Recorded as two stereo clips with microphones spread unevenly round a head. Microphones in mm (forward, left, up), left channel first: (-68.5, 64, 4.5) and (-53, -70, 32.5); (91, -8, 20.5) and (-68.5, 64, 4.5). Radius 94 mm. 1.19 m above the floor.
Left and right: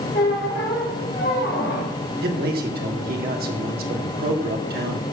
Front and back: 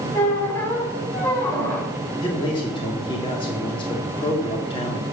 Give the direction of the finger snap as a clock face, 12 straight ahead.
No finger snap in this recording.